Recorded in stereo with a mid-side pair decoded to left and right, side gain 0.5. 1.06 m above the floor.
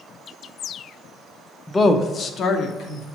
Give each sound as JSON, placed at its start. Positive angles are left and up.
{"t": 1.7, "sound": "a woman speaking", "azimuth_deg": 20, "distance_m": 0.9}